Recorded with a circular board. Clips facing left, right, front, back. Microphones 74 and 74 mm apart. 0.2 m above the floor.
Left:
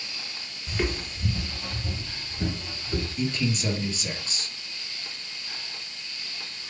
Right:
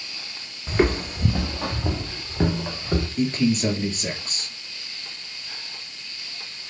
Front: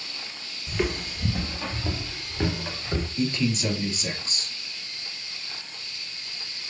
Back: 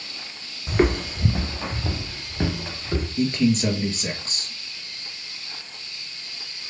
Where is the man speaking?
130° right, 4 m.